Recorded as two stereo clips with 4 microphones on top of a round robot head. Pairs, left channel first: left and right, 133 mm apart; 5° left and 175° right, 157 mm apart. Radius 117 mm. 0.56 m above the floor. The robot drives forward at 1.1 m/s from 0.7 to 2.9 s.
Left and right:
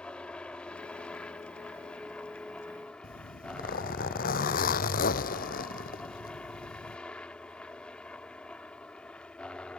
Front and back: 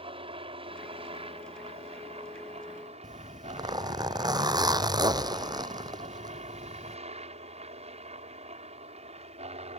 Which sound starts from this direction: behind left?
A zipper, at 3.0 s.